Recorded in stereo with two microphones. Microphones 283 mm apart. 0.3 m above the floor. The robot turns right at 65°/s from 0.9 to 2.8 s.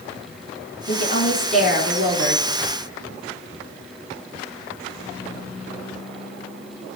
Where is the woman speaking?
135° left, 3.5 m; by 2.4 s 125° right, 3.5 m.